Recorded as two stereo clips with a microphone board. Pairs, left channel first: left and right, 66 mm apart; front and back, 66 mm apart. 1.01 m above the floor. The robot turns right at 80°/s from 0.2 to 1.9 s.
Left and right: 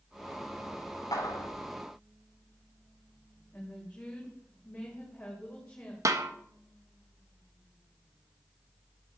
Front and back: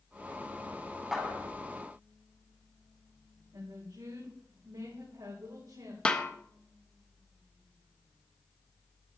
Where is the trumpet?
No trumpet in this recording.